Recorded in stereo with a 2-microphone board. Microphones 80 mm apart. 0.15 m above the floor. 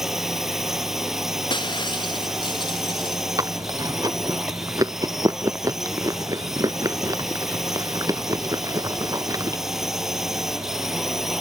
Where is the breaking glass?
90° left.